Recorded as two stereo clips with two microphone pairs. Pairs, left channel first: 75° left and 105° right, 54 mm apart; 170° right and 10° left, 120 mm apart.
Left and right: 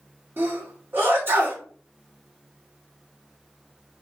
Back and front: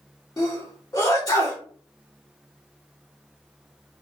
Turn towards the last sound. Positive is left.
turn(degrees=-130)